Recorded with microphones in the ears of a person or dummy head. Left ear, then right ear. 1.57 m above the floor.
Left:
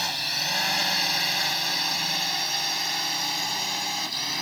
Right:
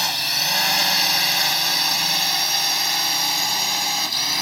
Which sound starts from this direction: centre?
A drone, at 0.0 s.